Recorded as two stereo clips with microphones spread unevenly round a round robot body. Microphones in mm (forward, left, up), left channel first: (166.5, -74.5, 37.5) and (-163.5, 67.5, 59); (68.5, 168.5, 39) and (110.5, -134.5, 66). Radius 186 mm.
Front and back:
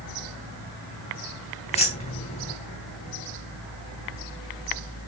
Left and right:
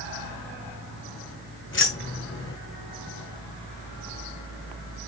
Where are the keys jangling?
50° left, 3.5 m.